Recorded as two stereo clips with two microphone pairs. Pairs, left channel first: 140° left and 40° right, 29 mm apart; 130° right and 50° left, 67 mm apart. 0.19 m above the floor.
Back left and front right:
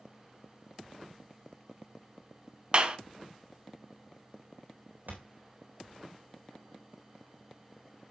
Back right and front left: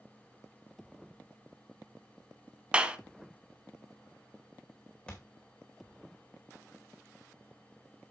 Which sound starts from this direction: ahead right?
A thud, at 5.1 s.